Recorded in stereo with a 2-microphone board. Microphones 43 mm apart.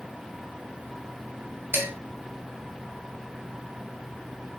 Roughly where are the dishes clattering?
Right.